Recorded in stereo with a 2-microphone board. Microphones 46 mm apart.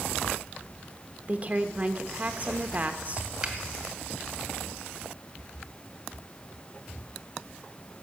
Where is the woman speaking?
30° right (ahead or behind), 1.0 m.